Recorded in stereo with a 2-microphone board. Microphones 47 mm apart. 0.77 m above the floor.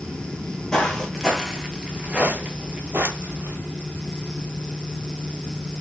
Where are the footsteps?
25° left (ahead or behind), 1.1 m; by 3.6 s 55° right (ahead or behind), 1.2 m.